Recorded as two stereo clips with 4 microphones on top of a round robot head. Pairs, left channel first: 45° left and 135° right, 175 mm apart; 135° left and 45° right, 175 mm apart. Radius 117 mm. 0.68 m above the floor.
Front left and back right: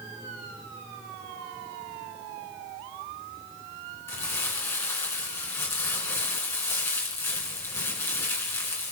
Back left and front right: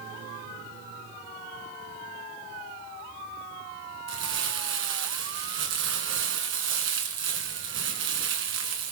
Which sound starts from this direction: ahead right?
Crumpling, at 4.1 s.